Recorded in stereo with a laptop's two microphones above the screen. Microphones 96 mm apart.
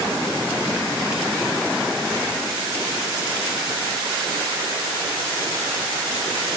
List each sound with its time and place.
Only background noise.